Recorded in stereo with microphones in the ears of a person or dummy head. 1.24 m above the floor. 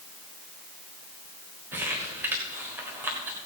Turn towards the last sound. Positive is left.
turn(degrees=-10)  # may be behind; listen again after turning